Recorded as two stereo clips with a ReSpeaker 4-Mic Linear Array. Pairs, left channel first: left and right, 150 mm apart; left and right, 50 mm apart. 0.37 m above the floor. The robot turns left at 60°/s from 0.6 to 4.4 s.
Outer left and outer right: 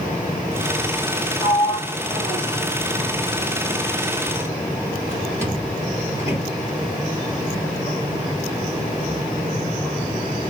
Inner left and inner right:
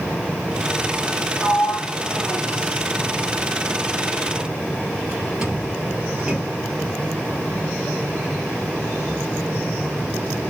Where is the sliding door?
20° left (ahead or behind), 2.5 m; by 6.5 s 20° right (ahead or behind), 2.5 m.